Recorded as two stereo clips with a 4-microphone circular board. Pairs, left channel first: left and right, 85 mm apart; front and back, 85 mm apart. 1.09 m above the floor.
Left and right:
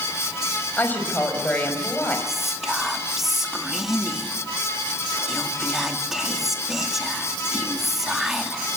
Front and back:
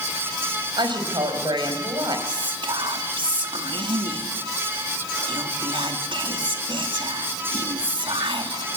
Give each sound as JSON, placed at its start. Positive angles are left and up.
{"t": 0.8, "sound": "a woman speaking", "azimuth_deg": 160, "distance_m": 5.0}
{"t": 2.3, "sound": "whispering", "azimuth_deg": -175, "distance_m": 2.5}